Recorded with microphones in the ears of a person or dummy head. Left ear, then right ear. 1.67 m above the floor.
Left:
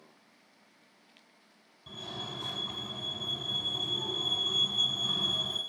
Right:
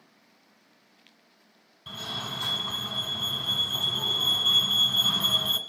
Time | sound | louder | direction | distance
1.9 | a fire alarm | right 6 dB | 35° right (ahead or behind) | 1.0 m